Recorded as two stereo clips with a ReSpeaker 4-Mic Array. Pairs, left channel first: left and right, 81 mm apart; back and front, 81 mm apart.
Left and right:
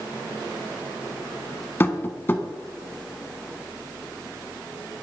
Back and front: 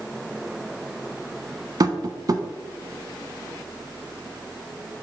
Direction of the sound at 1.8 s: 30° left.